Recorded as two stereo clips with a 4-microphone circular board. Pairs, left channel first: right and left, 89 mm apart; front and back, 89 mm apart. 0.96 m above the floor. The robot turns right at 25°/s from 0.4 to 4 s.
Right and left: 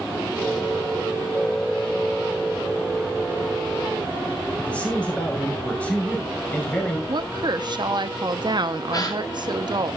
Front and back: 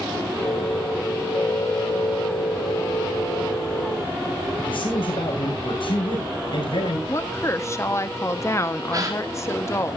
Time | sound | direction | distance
4.6 | a man speaking | 15° right | 6.5 m
7.1 | a woman speaking | 55° left | 1.2 m
8.9 | a gasp | 135° right | 2.5 m